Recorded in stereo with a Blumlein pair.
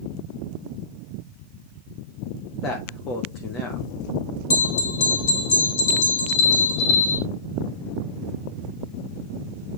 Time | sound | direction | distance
2.6 | a man speaking | 30° left | 1.3 m
4.5 | a bell | 55° left | 3 m